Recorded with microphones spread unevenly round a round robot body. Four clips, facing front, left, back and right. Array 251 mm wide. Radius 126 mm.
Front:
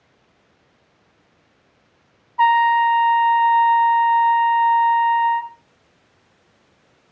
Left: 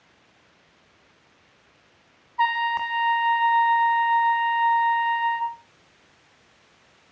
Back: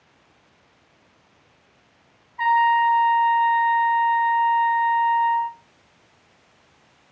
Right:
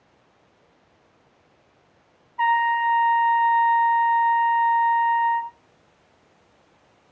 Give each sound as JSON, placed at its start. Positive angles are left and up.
{"t": 2.4, "sound": "a trumpet", "azimuth_deg": -15, "distance_m": 1.0}